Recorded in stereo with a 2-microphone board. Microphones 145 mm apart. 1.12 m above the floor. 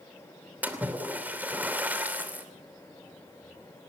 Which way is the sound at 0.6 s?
15° right (ahead or behind).